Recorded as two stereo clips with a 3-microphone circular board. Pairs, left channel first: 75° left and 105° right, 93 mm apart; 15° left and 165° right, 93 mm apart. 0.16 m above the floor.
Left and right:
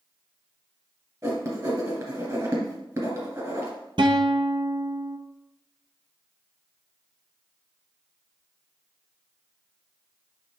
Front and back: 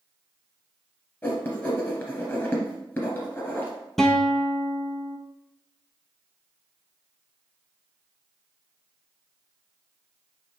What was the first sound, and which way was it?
Writing, 50° right.